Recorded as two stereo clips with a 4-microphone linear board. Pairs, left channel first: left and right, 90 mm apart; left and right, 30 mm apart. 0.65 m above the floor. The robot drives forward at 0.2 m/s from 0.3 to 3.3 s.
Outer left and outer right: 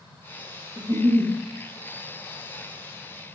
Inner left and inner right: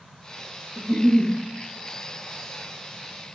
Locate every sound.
0.8 s a giggle: 40° right (ahead or behind), 0.5 m; by 1.3 s 35° right (ahead or behind), 0.6 m